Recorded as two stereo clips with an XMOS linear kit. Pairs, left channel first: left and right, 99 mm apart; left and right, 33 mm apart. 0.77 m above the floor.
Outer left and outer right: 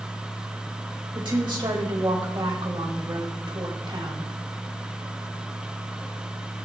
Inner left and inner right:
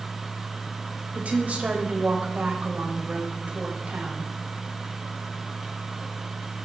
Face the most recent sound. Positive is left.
turn(degrees=-55)  # may be behind; listen again after turning